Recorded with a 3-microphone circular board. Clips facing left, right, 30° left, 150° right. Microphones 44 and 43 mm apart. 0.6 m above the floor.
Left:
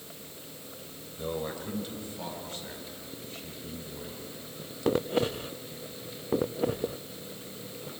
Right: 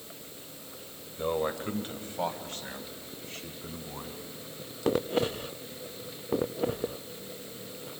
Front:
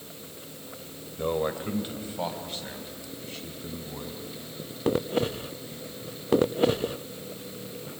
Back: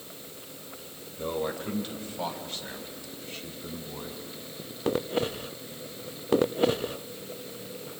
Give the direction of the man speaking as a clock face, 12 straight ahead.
1 o'clock.